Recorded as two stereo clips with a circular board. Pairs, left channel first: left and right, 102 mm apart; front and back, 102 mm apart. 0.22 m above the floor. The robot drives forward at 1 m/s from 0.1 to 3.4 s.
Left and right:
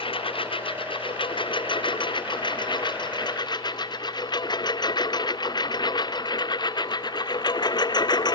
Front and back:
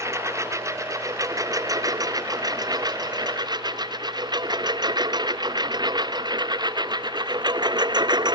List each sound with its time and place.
0.0 s a lawn mower: 120° left; by 8.4 s 135° left